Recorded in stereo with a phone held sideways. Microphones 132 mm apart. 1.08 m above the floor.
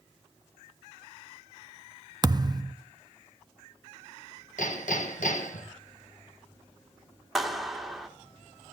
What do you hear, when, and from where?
2.2 s a thud: 30° right (ahead or behind), 0.7 m
4.6 s hammering: 75° left (ahead or behind), 4.5 m
7.3 s a clap: centre (ahead or behind), 1.9 m